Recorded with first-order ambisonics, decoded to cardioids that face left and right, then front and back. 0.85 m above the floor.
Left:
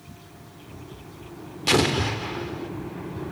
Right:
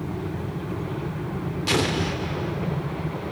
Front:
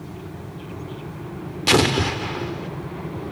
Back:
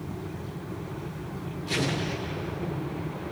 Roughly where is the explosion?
Ahead.